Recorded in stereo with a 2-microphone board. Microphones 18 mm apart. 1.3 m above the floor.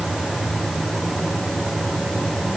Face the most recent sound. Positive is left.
No sound to turn to.